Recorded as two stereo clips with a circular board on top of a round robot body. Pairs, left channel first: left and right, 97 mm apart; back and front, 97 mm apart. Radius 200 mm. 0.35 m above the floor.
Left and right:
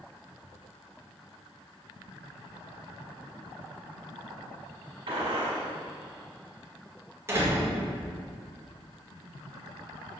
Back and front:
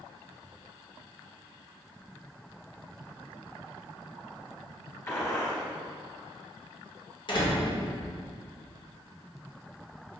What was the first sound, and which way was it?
A gunshot, 115° right.